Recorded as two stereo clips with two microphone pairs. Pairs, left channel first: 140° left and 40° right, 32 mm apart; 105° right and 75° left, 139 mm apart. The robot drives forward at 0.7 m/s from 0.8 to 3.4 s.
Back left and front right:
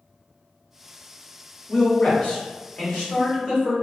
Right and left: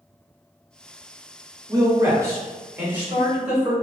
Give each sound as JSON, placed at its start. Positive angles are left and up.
{"t": 1.7, "sound": "a man speaking", "azimuth_deg": 115, "distance_m": 1.3}